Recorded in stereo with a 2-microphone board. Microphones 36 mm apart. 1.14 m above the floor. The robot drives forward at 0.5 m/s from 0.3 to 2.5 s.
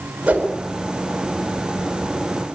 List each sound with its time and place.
0.3 s a whoosh: 30° right (ahead or behind), 5 m